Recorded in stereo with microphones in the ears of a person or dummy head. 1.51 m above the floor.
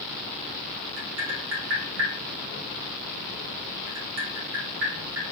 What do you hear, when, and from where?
1.0 s tapping: 60° right (ahead or behind), 1.5 m